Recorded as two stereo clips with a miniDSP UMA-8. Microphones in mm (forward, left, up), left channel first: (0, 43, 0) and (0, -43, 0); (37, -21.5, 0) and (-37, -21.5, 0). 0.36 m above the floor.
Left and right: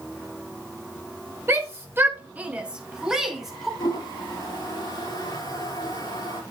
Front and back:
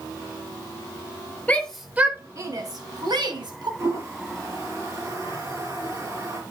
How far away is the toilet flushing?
About 6 m.